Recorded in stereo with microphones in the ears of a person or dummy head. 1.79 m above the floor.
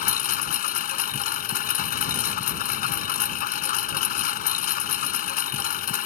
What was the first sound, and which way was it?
A lawn mower, 45° left (ahead or behind).